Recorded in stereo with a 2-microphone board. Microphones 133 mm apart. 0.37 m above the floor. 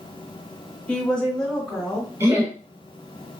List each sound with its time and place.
0.9 s a woman speaking: 10° left (ahead or behind), 1.3 m; by 2.1 s 5° left (ahead or behind), 1.8 m
2.2 s laughter: 25° right (ahead or behind), 0.8 m